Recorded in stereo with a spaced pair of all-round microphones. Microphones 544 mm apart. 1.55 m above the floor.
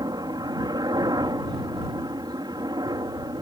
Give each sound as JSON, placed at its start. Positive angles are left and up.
{"t": 0.0, "sound": "a helicopter", "side_deg": -5}